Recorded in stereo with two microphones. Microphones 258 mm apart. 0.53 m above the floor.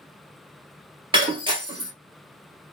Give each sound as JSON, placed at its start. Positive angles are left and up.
{"t": 1.1, "sound": "breaking glass", "side_deg": -20, "distance_m": 1.3}